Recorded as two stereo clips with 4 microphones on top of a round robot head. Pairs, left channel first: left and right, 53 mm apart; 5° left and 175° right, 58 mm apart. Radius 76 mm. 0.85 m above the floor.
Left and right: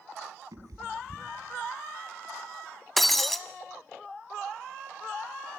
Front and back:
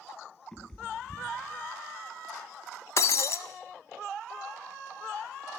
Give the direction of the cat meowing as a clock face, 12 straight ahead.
3 o'clock.